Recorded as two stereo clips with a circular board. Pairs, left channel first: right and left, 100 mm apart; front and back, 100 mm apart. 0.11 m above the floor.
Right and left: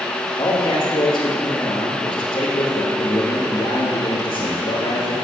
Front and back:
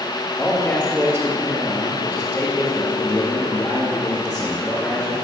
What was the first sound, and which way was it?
A man speaking, 65° right.